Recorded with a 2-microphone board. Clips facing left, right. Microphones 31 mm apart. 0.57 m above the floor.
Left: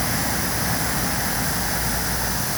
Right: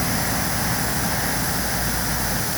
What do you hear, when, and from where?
Only background noise.